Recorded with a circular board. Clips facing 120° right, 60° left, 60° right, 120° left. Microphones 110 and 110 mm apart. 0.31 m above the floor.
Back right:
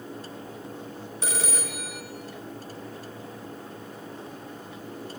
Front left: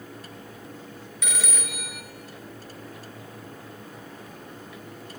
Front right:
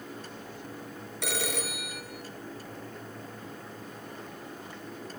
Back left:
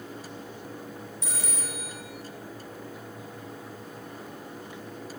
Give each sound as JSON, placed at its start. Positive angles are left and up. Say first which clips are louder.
{"t": 1.2, "sound": "a phone ringing", "louder": "back right 2 dB, front right 7 dB", "azimuth_deg": -65, "distance_m": 3.0}